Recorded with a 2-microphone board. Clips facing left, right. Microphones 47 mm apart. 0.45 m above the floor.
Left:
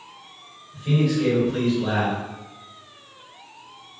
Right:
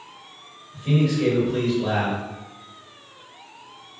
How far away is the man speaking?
About 1.6 m.